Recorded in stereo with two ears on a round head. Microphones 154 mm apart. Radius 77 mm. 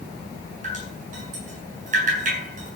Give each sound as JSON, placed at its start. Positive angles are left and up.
{"t": 0.6, "sound": "dripping", "side_deg": -45, "distance_m": 7.5}